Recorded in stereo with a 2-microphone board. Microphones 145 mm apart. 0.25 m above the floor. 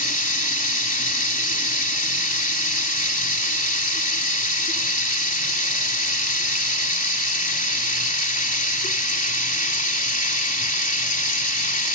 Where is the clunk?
No clunk in this recording.